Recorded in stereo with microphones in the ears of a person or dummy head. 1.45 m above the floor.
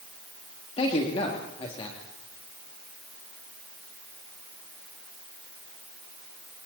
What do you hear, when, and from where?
0.8 s a man speaking: 35° left (ahead or behind), 3 m